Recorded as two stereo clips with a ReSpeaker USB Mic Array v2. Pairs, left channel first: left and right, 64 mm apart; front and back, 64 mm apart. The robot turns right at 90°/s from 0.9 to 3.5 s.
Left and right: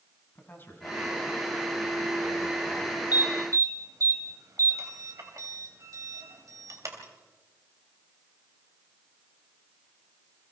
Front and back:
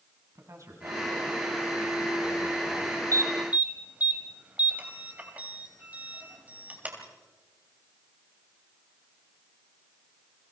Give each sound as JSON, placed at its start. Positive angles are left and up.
{"t": 0.3, "sound": "a man speaking", "azimuth_deg": 145, "distance_m": 4.5}
{"t": 3.1, "sound": "an alarm", "azimuth_deg": -150, "distance_m": 3.0}